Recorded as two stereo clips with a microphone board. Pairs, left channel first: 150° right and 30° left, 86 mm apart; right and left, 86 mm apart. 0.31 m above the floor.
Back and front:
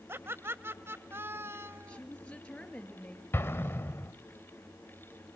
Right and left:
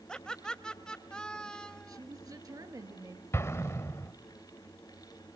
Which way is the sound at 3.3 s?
110° right.